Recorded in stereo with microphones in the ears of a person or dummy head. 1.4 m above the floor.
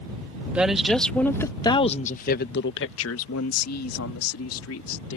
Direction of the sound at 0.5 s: 5° right (ahead or behind).